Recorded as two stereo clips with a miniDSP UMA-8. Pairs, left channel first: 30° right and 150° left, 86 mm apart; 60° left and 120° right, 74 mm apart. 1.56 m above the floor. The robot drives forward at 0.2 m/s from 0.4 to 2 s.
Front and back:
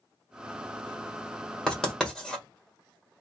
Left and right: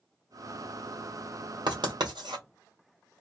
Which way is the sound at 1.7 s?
110° right.